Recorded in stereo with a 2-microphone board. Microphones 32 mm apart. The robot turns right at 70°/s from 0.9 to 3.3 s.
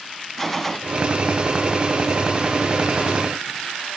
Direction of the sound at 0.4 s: 10° left (ahead or behind).